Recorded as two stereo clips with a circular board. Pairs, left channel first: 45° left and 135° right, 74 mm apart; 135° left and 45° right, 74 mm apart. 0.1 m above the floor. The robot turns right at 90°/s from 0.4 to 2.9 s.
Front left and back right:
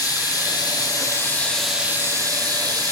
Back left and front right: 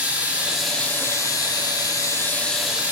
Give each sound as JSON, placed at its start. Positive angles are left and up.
{"t": 0.0, "sound": "running water", "azimuth_deg": 25, "distance_m": 0.8}